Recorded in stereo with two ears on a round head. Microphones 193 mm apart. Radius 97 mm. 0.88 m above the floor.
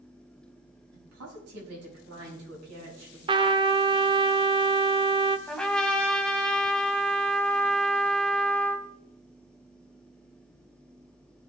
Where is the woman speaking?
80° right, 6.5 m.